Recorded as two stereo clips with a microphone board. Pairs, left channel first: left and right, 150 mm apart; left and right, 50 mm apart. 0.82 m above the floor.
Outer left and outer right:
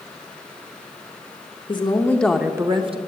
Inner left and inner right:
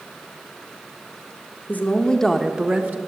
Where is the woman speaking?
30° left (ahead or behind), 1.2 m; by 3.0 s 40° right (ahead or behind), 1.2 m.